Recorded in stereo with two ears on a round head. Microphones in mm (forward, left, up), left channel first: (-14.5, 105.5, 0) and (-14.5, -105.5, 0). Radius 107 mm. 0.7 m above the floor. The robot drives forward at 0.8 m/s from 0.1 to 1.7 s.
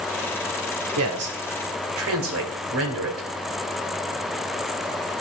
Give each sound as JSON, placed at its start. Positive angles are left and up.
{"t": 1.0, "sound": "a man speaking", "side_deg": -75, "distance_m": 2.5}